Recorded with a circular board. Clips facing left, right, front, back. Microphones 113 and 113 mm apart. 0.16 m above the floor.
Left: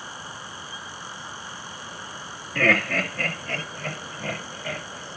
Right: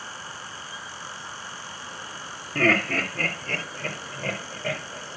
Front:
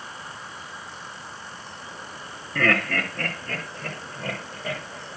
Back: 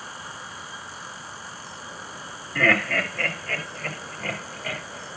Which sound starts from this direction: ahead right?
Laughter, at 2.5 s.